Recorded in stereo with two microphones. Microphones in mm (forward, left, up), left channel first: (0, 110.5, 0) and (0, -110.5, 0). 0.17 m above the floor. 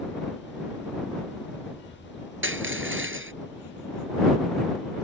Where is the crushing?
65° right (ahead or behind).